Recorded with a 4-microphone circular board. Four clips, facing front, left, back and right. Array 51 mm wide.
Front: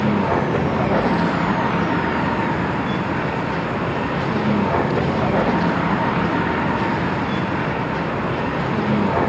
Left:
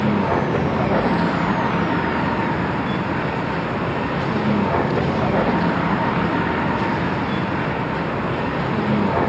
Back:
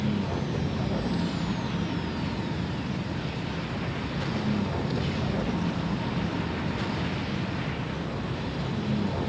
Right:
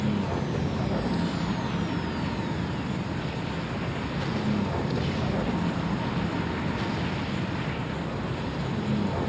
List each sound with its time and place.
0.0 s a vehicle: 40° left